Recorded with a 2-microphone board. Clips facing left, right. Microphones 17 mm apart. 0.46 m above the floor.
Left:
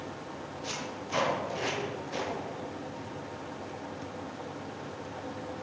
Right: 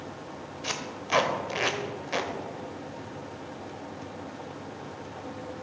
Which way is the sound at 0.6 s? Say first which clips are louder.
Right 6 dB; 65° right (ahead or behind).